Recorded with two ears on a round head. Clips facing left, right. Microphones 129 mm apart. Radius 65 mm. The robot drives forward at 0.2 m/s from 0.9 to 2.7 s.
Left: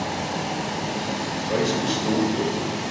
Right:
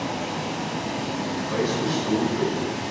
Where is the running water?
70° left (ahead or behind), 4 m; by 2.9 s 65° left (ahead or behind), 4 m.